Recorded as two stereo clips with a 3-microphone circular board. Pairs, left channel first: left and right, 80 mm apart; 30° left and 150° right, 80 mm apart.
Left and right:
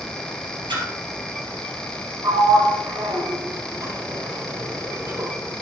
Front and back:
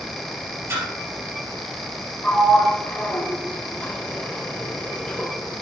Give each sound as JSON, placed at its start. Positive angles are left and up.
{"t": 0.7, "sound": "a splash", "azimuth_deg": -95, "distance_m": 3.0}
{"t": 2.2, "sound": "a sliding door", "azimuth_deg": -45, "distance_m": 1.6}